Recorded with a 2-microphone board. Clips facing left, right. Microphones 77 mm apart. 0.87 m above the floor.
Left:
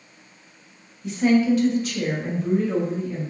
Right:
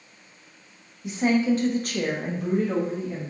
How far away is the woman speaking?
About 0.7 m.